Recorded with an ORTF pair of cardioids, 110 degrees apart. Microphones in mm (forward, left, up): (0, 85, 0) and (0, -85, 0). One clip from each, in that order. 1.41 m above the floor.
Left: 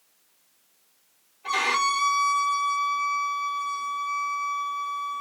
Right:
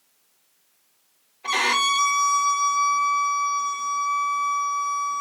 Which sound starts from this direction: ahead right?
A violin, at 1.4 s.